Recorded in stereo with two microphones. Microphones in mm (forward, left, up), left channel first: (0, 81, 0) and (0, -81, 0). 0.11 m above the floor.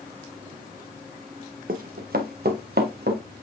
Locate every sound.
1.7 s running footsteps: 65° right (ahead or behind), 1.2 m; by 3.2 s 85° right, 2 m